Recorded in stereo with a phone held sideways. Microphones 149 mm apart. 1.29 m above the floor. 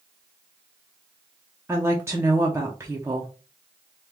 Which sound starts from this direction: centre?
A woman speaking, at 1.7 s.